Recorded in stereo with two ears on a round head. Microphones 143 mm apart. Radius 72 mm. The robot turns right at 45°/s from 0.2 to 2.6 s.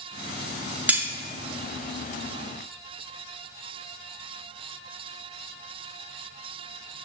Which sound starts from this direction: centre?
Cutlery clinking, at 0.9 s.